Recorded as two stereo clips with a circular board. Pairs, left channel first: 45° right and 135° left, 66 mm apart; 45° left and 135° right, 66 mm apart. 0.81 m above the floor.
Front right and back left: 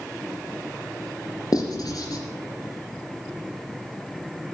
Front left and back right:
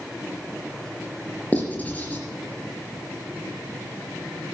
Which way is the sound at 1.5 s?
20° right.